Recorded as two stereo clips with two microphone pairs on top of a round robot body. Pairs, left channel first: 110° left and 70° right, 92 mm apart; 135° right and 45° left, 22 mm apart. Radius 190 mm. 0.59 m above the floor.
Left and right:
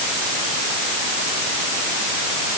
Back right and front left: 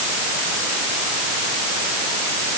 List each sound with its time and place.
Only background noise.